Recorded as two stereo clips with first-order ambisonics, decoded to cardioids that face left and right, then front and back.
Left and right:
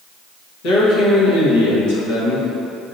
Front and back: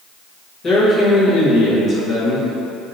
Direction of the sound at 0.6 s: 70° left.